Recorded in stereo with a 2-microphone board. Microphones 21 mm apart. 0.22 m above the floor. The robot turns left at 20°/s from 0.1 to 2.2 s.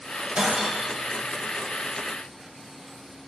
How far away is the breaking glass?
About 5.5 m.